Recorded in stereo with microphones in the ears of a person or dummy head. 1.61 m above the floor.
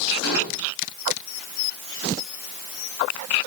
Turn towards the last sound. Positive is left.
turn(degrees=75)  # may be behind; listen again after turning